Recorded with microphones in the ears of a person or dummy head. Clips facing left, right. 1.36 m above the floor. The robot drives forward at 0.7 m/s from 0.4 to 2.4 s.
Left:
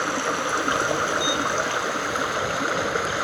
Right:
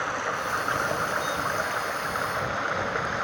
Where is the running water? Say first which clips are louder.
Left 5 dB; 50° left (ahead or behind); by 3.2 s 45° left (ahead or behind).